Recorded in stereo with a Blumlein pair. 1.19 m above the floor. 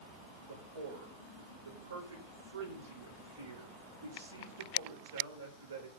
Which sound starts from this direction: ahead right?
A man speaking, at 0.5 s.